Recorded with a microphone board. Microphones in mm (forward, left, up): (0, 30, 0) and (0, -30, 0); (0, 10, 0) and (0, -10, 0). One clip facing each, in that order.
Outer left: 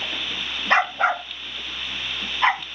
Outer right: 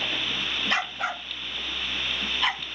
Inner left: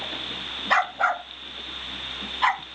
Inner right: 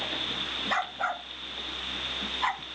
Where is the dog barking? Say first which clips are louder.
Outer left 11 dB, inner left 11 dB; 40° left (ahead or behind); by 2.6 s 35° left (ahead or behind).